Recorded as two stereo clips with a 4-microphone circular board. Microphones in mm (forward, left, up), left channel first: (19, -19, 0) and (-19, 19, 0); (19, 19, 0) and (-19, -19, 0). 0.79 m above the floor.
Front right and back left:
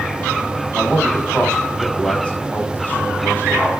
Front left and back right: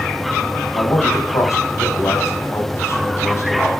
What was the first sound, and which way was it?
A man speaking, 40° left.